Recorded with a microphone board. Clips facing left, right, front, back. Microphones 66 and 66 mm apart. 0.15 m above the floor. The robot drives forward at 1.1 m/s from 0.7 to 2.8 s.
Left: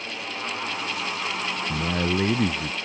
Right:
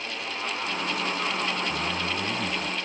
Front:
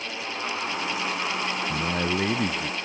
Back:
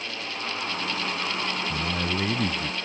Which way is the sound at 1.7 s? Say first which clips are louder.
Left 4 dB, front 2 dB; 50° left.